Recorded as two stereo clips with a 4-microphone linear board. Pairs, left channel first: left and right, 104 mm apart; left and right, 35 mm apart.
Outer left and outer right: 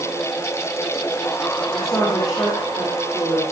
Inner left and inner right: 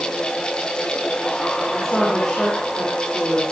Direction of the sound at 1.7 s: 35° left (ahead or behind).